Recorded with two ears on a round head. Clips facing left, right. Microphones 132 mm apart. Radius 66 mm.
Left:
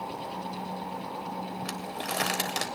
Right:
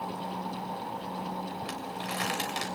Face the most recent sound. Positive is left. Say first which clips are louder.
# left 1 dB
turn(degrees=60)  # may be behind; listen again after turning